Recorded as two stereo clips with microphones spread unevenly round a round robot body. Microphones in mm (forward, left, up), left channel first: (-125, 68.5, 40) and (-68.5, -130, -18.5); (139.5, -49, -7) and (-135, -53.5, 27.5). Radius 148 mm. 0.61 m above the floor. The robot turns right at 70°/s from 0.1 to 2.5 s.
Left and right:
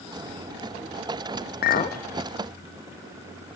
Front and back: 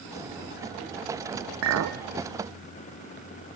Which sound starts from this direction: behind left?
A clink, at 1.6 s.